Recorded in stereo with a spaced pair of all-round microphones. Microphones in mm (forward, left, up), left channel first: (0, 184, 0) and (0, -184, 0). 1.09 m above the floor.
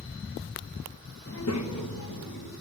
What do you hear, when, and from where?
1.3 s a child speaking: 30° left (ahead or behind), 0.7 m; by 2.5 s 70° left (ahead or behind), 1.5 m